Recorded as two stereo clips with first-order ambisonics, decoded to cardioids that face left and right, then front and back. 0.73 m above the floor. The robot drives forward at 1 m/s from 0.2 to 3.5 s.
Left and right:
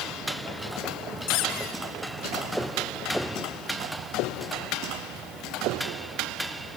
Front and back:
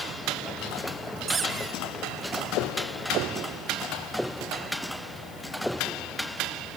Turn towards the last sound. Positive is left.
turn(degrees=160)